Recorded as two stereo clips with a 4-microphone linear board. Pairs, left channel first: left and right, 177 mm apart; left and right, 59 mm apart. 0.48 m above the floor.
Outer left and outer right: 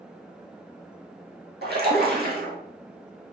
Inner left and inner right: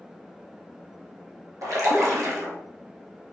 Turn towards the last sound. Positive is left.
turn(degrees=-70)  # may be behind; listen again after turning